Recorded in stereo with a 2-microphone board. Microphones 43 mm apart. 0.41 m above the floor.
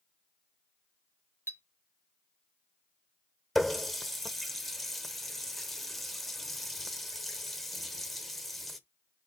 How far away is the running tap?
About 0.7 m.